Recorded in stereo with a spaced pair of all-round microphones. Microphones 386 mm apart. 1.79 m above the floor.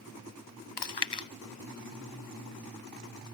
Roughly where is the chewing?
Left.